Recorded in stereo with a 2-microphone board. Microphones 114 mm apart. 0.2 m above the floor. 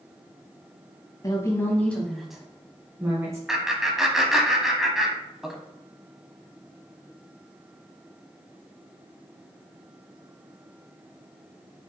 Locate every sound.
1.2 s a woman speaking: 30° left (ahead or behind), 1.2 m; by 3.4 s 25° right (ahead or behind), 1.7 m
3.5 s laughter: 5° right (ahead or behind), 1.0 m